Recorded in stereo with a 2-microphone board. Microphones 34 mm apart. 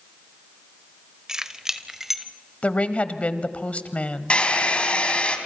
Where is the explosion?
No explosion in this recording.